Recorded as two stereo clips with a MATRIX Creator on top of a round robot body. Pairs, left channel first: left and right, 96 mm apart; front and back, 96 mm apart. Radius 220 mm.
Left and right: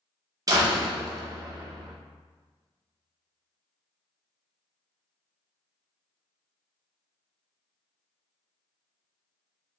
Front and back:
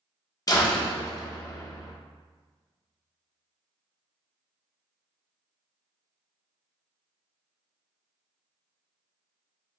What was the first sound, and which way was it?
A door slam, 45° right.